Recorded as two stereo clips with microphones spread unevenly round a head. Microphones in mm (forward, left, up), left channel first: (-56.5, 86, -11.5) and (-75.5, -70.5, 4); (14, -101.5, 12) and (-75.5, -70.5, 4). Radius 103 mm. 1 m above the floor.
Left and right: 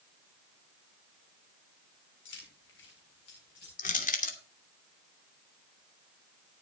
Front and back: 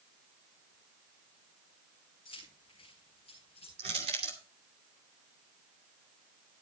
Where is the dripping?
I don't hear dripping.